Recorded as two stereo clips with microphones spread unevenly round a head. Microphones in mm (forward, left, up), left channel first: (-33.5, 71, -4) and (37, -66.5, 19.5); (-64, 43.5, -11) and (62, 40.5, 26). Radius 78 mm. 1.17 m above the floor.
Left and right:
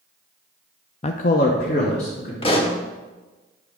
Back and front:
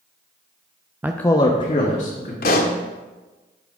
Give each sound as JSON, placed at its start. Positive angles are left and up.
{"t": 1.0, "sound": "a man speaking", "azimuth_deg": 80, "distance_m": 0.5}
{"t": 2.4, "sound": "a pop", "azimuth_deg": 175, "distance_m": 1.0}